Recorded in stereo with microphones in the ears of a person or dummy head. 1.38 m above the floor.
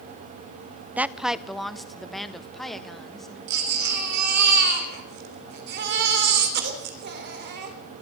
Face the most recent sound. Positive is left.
turn(degrees=-60)  # may be behind; listen again after turning